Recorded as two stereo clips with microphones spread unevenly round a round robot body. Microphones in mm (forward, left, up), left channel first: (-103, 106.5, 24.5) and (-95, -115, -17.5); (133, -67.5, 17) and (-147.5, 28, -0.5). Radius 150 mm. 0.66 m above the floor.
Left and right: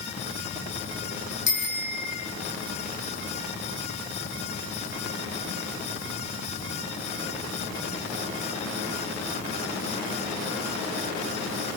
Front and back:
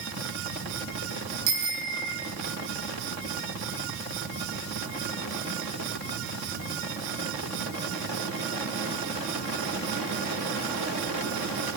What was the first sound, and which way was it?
A bicycle bell, 130° left.